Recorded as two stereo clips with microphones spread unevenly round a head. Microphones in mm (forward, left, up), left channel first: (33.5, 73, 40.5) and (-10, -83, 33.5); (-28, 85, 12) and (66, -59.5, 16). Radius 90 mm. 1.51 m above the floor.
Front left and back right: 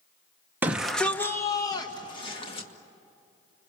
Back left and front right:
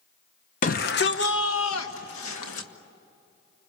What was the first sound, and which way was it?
A shout, 175° left.